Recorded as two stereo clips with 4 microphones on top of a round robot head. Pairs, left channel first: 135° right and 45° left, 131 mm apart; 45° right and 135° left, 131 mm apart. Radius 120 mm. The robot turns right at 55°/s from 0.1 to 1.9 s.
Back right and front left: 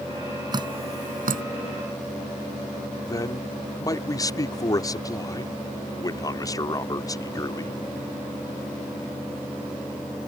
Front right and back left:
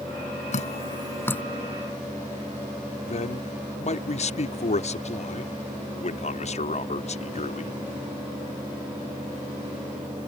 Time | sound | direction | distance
0.5 | dripping | 15° right | ?
3.0 | a man speaking | 75° right | ?